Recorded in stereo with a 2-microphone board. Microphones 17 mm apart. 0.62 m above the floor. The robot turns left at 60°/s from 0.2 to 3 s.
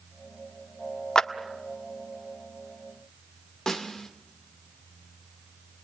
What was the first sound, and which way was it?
A clap, 45° left (ahead or behind).